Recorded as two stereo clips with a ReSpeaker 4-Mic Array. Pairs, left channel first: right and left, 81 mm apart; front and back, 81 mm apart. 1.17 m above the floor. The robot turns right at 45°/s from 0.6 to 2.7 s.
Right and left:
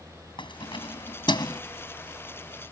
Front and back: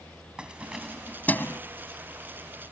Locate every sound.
0.4 s keys jangling: 100° right; by 1.6 s 55° right